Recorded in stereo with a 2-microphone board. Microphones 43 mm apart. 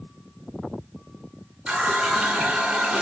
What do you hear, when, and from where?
1.7 s a running tap: 20° right (ahead or behind), 1.1 m